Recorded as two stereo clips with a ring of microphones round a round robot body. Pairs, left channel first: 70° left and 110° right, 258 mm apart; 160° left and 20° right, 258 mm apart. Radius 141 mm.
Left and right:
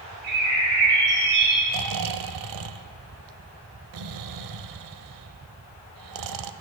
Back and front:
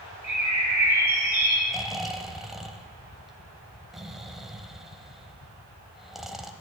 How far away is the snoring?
About 0.6 m.